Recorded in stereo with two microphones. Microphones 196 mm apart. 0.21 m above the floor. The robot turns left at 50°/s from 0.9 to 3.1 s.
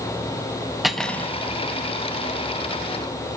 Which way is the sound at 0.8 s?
Centre (ahead or behind).